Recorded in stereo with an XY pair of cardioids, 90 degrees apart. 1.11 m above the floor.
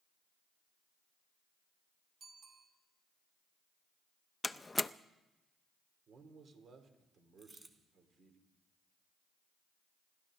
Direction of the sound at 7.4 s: 30° right.